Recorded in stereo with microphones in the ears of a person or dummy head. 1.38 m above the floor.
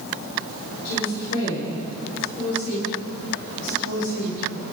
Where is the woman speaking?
70° left (ahead or behind), 4.5 m.